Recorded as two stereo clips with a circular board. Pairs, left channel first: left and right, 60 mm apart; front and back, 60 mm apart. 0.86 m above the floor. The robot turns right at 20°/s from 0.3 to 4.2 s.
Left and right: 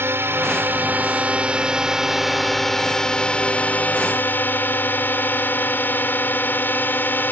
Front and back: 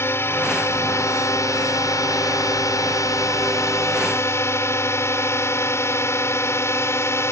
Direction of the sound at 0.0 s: 40° right.